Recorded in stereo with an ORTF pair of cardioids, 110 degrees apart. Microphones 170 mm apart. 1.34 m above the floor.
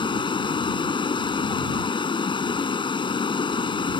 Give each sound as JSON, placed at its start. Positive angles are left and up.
{"t": 0.0, "sound": "running water", "azimuth_deg": 30}